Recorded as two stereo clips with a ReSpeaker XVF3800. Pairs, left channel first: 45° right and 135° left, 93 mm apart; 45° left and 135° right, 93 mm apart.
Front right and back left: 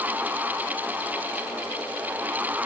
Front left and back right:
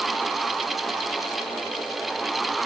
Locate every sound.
Only background noise.